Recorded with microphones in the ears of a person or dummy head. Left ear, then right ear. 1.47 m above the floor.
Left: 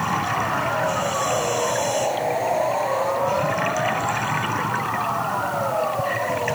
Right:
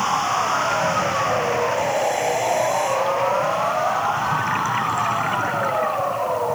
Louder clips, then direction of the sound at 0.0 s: Right 3 dB; 75° right (ahead or behind).